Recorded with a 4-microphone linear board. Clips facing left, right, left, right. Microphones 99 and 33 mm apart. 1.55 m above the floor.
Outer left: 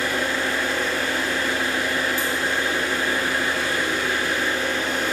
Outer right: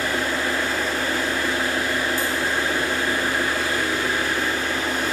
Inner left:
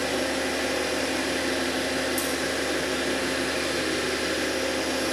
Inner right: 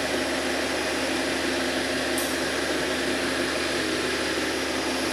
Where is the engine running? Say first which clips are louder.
Even, even; 40° right (ahead or behind), 1.2 m.